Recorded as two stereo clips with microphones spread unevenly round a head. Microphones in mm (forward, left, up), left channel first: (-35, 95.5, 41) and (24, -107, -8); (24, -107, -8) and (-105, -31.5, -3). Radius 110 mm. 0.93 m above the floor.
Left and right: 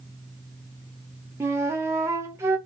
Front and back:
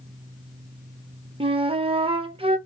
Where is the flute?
155° right, 0.6 m.